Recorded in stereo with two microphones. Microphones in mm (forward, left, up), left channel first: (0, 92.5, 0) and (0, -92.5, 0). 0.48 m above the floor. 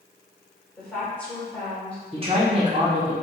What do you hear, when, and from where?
0.8 s a woman speaking: 10° left (ahead or behind), 1.9 m
2.1 s a man speaking: 35° right (ahead or behind), 1.1 m